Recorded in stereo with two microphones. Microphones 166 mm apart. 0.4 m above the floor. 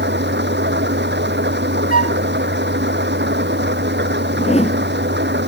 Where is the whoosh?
40° left (ahead or behind).